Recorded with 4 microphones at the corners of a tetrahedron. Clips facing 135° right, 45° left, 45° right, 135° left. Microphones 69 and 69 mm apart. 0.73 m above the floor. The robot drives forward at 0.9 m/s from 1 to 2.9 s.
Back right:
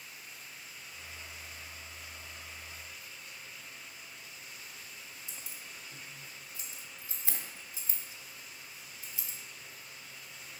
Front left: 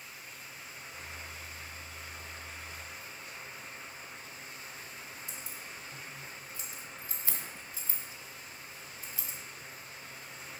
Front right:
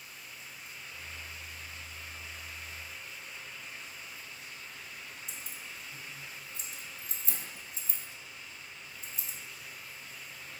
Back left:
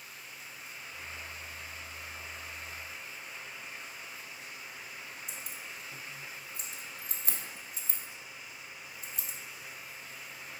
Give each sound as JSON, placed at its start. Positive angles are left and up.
{"t": 5.3, "sound": "keys jangling", "azimuth_deg": 160, "distance_m": 1.1}